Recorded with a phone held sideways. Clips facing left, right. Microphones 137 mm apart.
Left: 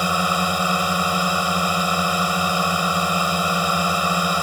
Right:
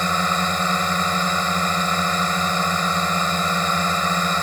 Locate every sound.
0.0 s a drone: 10° left (ahead or behind)